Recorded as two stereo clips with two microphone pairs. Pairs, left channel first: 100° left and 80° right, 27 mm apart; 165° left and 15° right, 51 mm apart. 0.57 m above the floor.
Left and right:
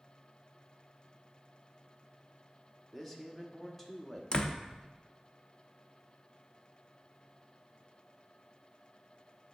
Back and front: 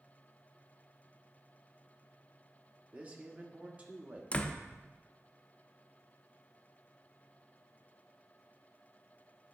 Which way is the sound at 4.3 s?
125° left.